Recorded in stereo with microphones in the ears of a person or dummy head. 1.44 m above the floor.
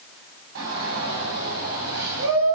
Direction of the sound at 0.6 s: 85° right.